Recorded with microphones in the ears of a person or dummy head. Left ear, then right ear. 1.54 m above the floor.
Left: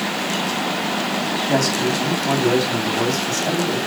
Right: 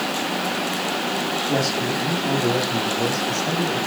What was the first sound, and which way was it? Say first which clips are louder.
A man speaking: left 4 dB; 60° left (ahead or behind).